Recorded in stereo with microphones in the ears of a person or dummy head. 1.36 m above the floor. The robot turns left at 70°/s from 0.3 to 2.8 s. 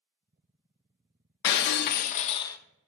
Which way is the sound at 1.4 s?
95° left.